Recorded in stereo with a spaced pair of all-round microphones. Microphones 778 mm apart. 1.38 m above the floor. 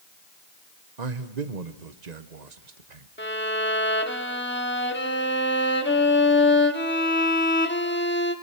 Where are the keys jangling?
I don't hear keys jangling.